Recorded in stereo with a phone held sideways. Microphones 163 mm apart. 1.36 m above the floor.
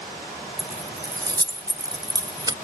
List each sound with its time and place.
0.6 s keys jangling: 25° right (ahead or behind), 0.5 m